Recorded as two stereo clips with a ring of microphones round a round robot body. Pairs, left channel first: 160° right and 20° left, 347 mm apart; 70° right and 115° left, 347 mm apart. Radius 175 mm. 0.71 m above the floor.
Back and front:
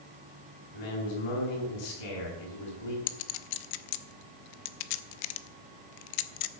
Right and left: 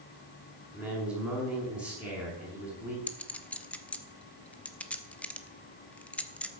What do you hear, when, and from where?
0.7 s a man speaking: 150° right, 6 m
3.1 s a clink: 155° right, 0.8 m